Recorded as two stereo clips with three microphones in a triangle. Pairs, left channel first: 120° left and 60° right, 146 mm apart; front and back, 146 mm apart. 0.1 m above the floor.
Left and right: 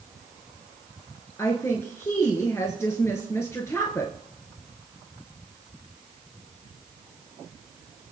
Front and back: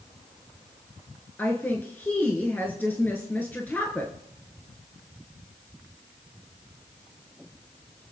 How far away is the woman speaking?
About 1.5 m.